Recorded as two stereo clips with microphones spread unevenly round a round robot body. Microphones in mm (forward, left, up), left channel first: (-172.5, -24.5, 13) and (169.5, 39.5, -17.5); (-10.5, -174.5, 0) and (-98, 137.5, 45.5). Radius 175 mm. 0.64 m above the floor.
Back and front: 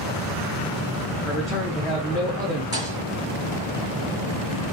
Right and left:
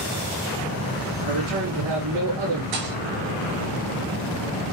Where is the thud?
90° left, 6 m.